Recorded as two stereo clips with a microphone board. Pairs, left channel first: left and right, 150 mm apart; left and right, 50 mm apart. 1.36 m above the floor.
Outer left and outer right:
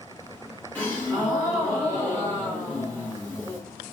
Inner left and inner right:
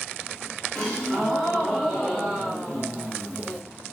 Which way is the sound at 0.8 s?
10° left (ahead or behind).